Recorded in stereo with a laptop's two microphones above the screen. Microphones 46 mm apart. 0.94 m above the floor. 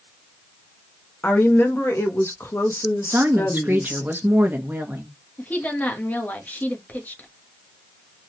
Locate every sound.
1.2 s a woman speaking: 50° left (ahead or behind), 1.6 m; by 4.0 s 40° left (ahead or behind), 1.7 m
3.0 s a woman speaking: 45° right (ahead or behind), 1.0 m
5.4 s a woman speaking: 35° left (ahead or behind), 1.4 m